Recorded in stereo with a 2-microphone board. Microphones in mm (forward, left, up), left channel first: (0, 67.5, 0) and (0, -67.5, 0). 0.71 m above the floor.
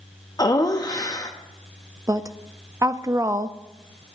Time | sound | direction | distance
0.4 | laughter | 30° left (ahead or behind) | 0.8 m
2.1 | a woman speaking | 25° right (ahead or behind) | 0.5 m